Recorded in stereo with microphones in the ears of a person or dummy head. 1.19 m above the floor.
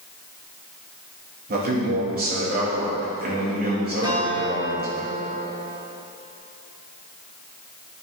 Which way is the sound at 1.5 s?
45° right (ahead or behind).